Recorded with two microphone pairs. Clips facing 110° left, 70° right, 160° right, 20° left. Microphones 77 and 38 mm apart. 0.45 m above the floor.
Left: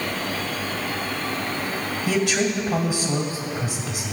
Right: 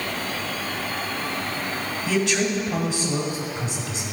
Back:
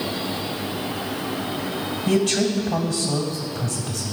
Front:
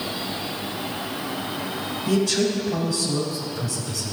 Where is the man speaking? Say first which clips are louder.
Left 1 dB, back 1 dB; 170° right, 2 m.